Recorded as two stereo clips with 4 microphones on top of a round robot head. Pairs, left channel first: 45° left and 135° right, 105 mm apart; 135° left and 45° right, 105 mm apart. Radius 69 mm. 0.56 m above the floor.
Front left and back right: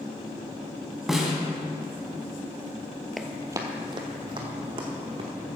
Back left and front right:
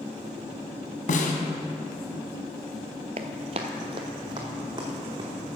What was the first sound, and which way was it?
A snare drum, 135° left.